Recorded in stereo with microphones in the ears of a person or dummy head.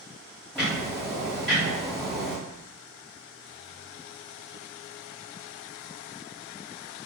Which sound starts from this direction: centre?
Ticking, at 0.6 s.